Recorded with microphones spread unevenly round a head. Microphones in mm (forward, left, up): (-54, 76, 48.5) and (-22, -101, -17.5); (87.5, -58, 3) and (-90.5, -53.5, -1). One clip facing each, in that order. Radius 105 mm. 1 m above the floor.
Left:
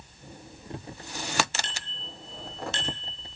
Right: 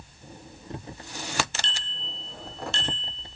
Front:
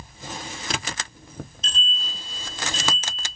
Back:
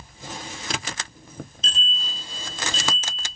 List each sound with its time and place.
1.6 s a bicycle bell: straight behind, 9 m; by 3.2 s 170° right, 9.5 m